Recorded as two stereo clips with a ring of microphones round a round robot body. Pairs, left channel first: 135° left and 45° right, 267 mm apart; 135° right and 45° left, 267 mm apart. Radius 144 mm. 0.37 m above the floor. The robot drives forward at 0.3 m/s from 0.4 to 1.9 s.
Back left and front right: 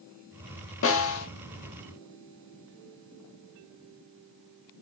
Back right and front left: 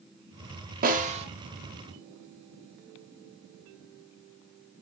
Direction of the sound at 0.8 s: 100° left.